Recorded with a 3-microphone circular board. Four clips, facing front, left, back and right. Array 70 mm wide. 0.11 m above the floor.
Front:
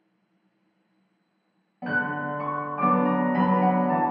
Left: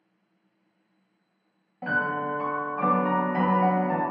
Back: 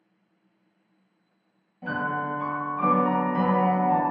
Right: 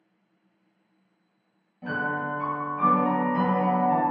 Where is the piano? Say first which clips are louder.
Left 2 dB, front 1 dB; 45° left, 0.6 m.